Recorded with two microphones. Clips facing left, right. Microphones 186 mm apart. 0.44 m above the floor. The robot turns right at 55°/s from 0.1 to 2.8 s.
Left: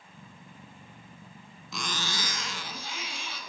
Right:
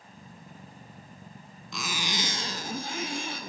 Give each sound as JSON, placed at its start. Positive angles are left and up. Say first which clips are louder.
{"t": 1.7, "sound": "a zipper", "louder": "right 2 dB", "azimuth_deg": 180, "distance_m": 0.6}